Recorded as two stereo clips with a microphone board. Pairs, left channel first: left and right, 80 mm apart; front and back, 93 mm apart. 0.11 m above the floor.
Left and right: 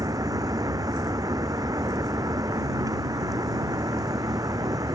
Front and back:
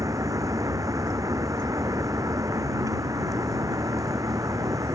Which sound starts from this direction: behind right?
A vehicle, at 0.0 s.